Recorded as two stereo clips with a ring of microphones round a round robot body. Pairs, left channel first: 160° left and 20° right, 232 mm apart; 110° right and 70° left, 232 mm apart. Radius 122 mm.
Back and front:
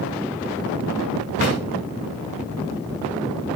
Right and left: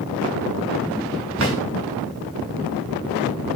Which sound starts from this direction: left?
A drawer, at 1.4 s.